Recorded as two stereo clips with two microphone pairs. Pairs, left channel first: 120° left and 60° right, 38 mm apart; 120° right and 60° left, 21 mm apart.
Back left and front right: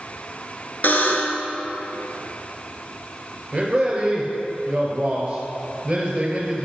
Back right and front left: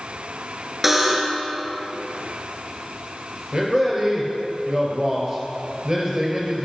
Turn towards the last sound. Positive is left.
turn(degrees=5)